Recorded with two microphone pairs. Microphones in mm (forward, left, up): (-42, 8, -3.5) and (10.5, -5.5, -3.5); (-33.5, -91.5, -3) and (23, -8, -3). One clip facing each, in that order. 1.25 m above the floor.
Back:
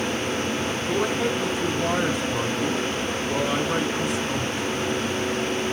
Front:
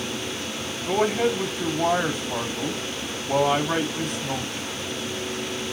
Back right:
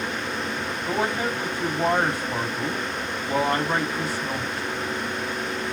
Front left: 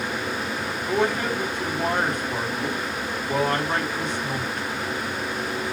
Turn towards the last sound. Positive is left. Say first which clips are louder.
# front 4 dB, front left 2 dB
turn(degrees=-40)